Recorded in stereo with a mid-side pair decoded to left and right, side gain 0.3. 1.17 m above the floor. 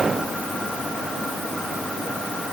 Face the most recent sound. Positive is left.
No sound to turn to.